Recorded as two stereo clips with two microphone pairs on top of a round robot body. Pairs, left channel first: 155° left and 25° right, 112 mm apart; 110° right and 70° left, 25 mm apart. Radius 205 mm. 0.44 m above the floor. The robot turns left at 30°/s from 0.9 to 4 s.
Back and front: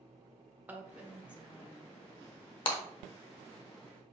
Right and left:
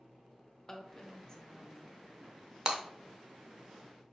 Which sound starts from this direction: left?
Breaking glass, at 2.7 s.